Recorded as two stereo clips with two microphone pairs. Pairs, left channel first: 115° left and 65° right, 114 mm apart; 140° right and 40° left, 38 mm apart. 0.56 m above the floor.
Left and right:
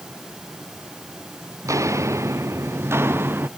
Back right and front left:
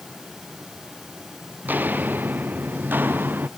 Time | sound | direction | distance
1.6 | footsteps | straight ahead | ?